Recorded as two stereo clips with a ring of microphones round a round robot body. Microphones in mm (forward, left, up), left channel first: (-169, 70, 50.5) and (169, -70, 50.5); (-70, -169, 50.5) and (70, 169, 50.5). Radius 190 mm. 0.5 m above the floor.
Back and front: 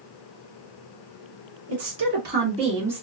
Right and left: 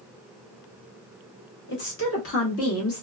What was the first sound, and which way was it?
A woman speaking, 65° right.